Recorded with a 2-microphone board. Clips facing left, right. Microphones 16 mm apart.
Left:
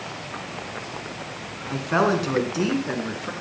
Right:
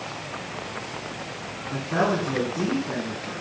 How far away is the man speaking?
About 1.9 m.